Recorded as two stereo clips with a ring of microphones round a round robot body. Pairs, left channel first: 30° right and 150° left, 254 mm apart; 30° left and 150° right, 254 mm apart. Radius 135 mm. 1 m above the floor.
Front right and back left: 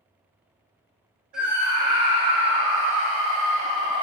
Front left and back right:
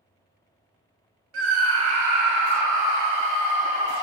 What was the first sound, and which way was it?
A scream, 120° right.